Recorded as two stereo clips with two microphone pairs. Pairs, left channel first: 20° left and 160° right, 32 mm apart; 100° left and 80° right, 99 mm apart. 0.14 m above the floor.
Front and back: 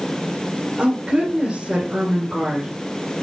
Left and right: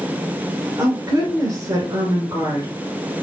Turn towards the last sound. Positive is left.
turn(degrees=-120)